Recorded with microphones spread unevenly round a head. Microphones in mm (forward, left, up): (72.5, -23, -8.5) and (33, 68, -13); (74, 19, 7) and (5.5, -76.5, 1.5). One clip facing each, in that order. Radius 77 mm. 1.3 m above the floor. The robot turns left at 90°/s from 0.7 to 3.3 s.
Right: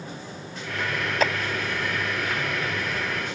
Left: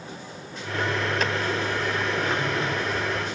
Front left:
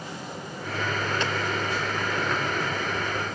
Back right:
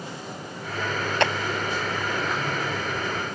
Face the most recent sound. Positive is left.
turn(degrees=75)